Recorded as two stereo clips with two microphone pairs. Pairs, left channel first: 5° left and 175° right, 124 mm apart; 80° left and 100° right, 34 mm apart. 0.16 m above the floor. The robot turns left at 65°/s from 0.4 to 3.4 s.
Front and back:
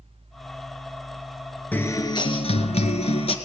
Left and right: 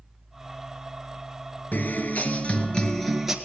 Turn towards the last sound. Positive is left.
turn(degrees=-30)